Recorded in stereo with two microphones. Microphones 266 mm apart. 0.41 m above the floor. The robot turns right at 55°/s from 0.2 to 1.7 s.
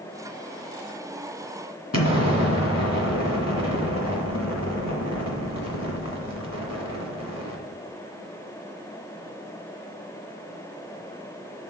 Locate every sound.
1.9 s an explosion: 70° left (ahead or behind), 1.7 m